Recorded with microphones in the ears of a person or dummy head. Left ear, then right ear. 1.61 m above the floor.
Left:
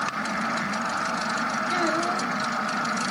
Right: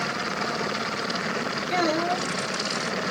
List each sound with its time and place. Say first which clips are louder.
1.7 s a child speaking: right 3 dB; 5° right (ahead or behind), 1.7 m